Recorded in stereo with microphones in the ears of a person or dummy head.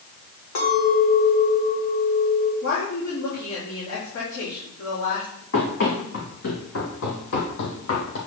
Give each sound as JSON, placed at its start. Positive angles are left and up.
{"t": 0.6, "sound": "a clink", "side_deg": 85, "distance_m": 3.5}
{"t": 2.6, "sound": "a woman speaking", "side_deg": 80, "distance_m": 4.0}
{"t": 5.5, "sound": "running footsteps", "side_deg": 60, "distance_m": 3.0}